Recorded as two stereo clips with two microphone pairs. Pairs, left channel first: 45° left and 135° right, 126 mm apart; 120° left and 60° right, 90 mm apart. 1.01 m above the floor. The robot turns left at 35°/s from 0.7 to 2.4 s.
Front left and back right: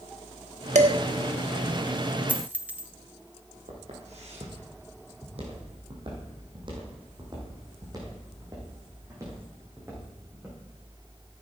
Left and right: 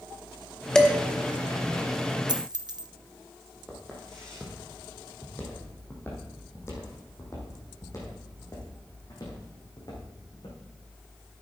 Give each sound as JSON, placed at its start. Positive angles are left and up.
{"t": 0.8, "sound": "dishes clattering", "azimuth_deg": -155, "distance_m": 1.1}
{"t": 2.3, "sound": "a dropped coin", "azimuth_deg": -50, "distance_m": 0.5}
{"t": 3.7, "sound": "footsteps", "azimuth_deg": -150, "distance_m": 3.0}